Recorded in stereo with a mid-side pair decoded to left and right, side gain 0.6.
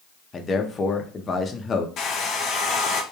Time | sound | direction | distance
0.3 | a man speaking | 30° left | 0.6 m
2.0 | a hair dryer | 50° left | 0.6 m